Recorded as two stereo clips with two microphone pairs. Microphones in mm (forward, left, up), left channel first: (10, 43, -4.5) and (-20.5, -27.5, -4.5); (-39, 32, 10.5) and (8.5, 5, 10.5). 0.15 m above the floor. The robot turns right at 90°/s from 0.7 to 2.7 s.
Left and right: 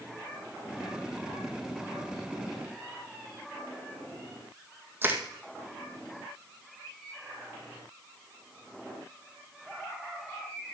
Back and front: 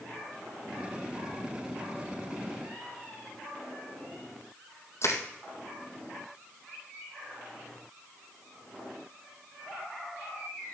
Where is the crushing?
175° right, 2 m.